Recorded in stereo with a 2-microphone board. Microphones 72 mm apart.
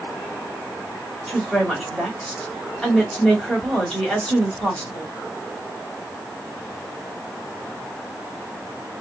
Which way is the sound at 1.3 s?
10° left (ahead or behind).